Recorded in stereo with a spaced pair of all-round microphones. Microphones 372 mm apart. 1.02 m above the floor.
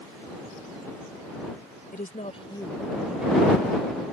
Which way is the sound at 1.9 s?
25° left (ahead or behind).